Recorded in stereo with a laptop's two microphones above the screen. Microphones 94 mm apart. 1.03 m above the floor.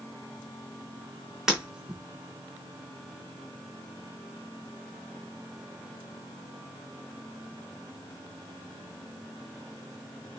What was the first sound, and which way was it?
Breaking glass, 5° right (ahead or behind).